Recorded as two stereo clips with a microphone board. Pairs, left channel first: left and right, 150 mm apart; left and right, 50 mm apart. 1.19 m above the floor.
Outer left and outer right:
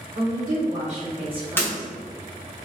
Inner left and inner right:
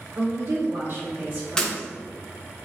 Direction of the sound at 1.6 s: 15° left (ahead or behind).